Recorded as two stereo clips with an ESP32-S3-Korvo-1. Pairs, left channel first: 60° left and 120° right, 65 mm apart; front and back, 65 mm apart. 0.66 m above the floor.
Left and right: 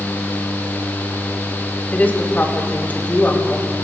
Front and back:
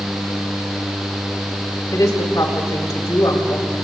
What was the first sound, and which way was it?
A woman speaking, straight ahead.